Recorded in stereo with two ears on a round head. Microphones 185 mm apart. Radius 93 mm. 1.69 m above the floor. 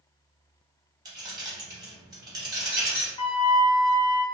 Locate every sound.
1.1 s keys jangling: 20° right (ahead or behind), 1.1 m
3.2 s a flute: 25° left (ahead or behind), 0.5 m